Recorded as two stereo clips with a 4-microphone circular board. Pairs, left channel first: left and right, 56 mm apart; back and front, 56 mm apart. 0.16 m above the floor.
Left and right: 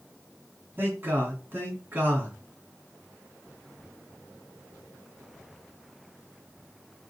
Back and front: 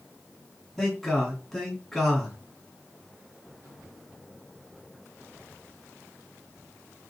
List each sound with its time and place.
0.8 s a man speaking: 90° right, 1.5 m